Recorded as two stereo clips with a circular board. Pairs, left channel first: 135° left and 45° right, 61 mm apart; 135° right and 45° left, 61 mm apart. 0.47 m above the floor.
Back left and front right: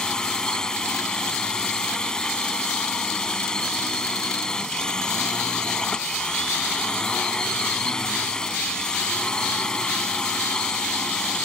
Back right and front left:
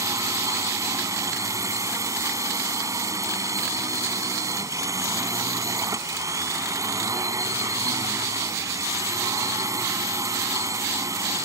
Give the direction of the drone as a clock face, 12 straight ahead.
10 o'clock.